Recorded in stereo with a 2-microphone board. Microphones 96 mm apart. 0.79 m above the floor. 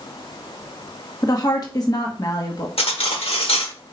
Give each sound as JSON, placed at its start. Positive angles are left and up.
{"t": 1.2, "sound": "a woman speaking", "side_deg": 40, "distance_m": 1.2}
{"t": 2.8, "sound": "cutlery clinking", "side_deg": 90, "distance_m": 1.3}